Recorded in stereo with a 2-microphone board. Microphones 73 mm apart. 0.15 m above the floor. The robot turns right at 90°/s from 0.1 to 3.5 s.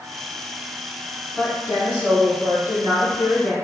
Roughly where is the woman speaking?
Centre.